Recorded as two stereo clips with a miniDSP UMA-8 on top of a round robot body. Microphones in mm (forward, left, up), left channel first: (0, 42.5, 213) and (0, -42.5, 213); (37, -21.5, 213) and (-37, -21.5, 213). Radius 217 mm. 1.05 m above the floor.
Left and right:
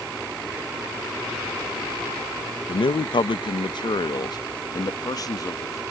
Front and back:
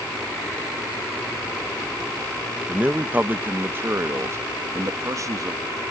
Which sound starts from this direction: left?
A man speaking, at 2.7 s.